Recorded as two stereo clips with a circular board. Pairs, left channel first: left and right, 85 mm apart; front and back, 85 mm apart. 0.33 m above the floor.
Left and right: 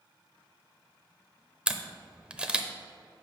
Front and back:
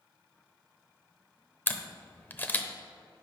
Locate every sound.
1.7 s a camera shutter: 30° right, 0.7 m